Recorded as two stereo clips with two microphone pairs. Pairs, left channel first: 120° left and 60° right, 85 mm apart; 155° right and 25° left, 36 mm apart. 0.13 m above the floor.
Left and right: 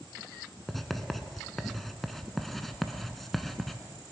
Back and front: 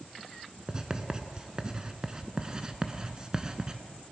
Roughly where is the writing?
Ahead left.